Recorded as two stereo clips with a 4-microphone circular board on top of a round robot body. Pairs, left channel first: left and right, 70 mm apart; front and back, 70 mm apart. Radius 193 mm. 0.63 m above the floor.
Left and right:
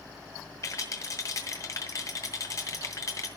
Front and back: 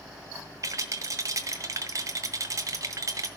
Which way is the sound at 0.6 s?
140° left.